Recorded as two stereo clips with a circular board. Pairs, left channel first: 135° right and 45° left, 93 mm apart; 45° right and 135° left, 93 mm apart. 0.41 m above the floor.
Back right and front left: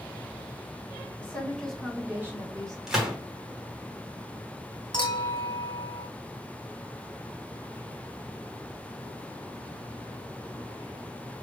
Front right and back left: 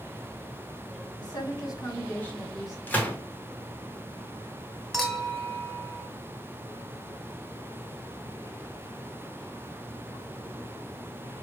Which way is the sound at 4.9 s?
130° right.